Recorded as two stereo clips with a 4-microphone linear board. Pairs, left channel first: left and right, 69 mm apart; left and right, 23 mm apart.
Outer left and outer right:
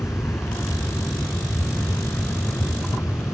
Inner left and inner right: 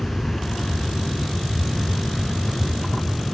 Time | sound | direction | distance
0.0 | an aircraft | 40° left (ahead or behind) | ?